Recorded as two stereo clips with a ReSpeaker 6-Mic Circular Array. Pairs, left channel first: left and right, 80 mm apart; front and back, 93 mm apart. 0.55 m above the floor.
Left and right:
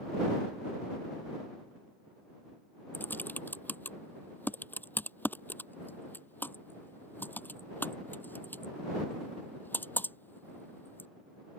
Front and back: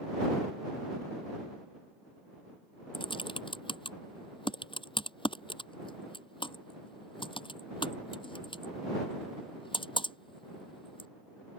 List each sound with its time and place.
2.9 s typing on a keyboard: 25° left